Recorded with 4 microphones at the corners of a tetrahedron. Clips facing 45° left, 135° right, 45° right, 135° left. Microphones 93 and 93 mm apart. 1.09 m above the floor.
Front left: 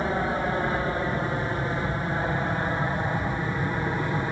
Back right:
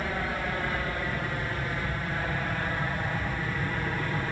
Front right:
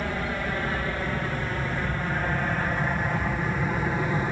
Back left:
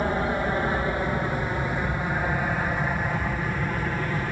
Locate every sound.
0.0 s an aircraft: 90° left; by 4.3 s 15° left